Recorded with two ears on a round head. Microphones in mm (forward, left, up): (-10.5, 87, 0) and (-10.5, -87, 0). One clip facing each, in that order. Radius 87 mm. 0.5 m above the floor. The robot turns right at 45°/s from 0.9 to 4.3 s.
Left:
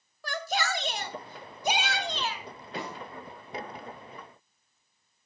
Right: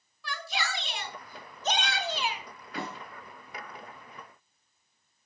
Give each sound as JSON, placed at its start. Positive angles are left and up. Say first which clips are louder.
{"t": 0.2, "sound": "a shout", "louder": "left 5 dB", "azimuth_deg": 135, "distance_m": 1.8}
{"t": 2.8, "sound": "a snare drum", "louder": "even", "side_deg": 20, "distance_m": 7.0}